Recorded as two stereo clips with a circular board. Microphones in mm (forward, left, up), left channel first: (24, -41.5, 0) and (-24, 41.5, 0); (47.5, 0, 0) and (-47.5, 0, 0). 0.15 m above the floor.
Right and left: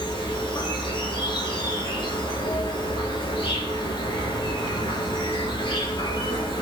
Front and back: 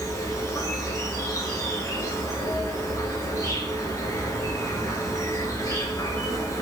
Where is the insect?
45° right, 1.2 m.